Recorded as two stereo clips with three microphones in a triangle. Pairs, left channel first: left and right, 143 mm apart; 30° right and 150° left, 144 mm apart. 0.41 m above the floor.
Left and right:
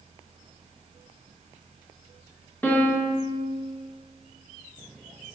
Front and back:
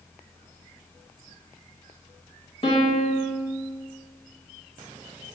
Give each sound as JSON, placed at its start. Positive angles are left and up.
{"t": 2.6, "sound": "a piano", "azimuth_deg": 15, "distance_m": 0.7}